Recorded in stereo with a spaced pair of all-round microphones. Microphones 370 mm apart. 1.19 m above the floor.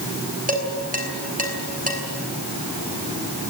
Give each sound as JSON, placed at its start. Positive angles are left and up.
{"t": 0.5, "sound": "dishes clattering", "side_deg": -20, "distance_m": 5.0}